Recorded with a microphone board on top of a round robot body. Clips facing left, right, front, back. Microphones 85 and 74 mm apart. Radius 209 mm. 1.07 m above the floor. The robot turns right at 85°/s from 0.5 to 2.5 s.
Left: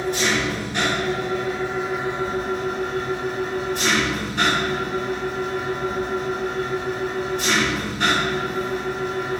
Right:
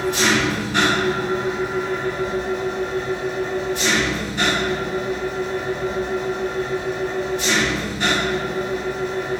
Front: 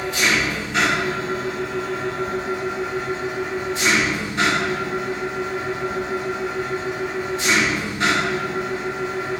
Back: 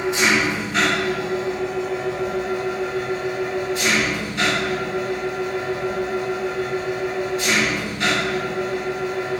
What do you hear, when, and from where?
0.0 s an engine running: 115° right, 2.5 m; by 9.4 s 55° left, 2.5 m